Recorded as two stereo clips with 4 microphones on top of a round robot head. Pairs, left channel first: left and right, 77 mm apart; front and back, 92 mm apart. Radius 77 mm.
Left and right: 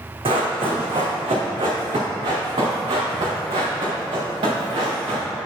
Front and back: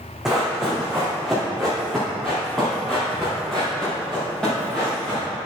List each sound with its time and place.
0.2 s running footsteps: 90° right, 2 m; by 5.2 s 80° right, 4.5 m